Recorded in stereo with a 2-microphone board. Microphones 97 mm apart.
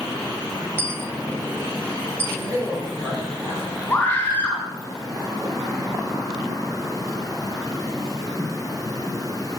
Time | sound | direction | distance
0.8 | a dropped coin | 25° right (ahead or behind) | 1.3 m
2.3 | a man speaking | 35° right (ahead or behind) | 7.5 m
3.9 | a scream | 20° left (ahead or behind) | 5.5 m